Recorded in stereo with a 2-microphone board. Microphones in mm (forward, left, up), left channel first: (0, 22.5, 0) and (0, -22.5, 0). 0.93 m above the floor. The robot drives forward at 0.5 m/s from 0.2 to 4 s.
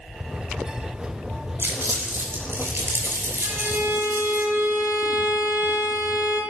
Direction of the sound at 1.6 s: 65° right (ahead or behind).